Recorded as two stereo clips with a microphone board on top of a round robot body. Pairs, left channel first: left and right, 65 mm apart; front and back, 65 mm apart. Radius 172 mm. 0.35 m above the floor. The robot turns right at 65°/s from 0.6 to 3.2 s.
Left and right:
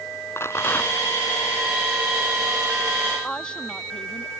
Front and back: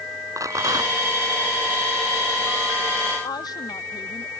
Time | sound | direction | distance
0.4 | a rattle | 140° left | ?
3.2 | a woman speaking | 10° left | ?